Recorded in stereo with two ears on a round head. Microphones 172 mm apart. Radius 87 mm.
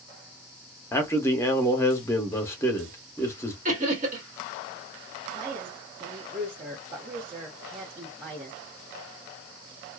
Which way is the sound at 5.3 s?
35° right (ahead or behind).